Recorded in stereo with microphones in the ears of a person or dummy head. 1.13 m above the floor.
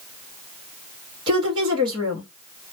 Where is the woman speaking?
20° right (ahead or behind), 0.8 m.